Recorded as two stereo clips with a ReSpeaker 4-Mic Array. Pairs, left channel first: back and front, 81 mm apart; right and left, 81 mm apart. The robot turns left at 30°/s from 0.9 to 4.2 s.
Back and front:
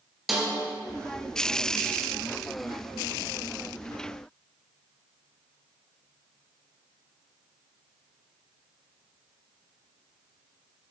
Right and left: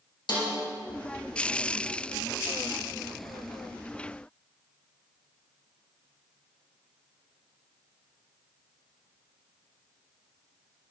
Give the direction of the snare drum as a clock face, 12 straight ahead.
3 o'clock.